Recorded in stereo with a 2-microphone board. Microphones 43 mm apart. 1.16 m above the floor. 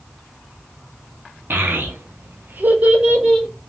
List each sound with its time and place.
1.5 s a child speaking: 50° right (ahead or behind), 1.0 m; by 3.5 s 10° right (ahead or behind), 0.8 m